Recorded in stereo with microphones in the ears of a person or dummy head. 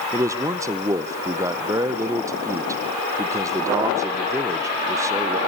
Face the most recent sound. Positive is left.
turn(degrees=-15)  # may be behind; listen again after turning